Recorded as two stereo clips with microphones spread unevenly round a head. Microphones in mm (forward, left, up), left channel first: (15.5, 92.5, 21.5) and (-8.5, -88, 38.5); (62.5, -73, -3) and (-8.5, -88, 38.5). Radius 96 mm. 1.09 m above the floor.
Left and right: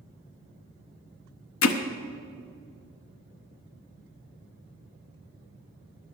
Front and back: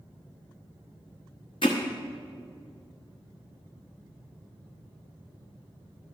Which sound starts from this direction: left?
Hammering, at 1.6 s.